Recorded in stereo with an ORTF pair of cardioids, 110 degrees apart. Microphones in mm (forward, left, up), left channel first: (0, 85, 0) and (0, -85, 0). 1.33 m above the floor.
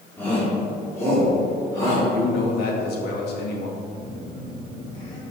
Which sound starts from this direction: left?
A man speaking, at 2.1 s.